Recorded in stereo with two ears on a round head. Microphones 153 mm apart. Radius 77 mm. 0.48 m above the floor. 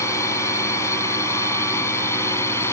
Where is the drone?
15° left (ahead or behind).